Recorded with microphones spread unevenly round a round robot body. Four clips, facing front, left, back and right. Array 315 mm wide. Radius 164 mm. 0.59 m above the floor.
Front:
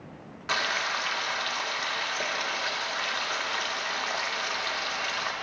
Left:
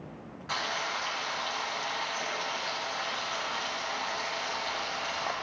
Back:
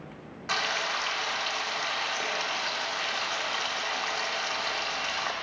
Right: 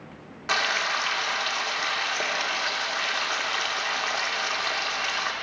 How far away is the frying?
About 1.9 m.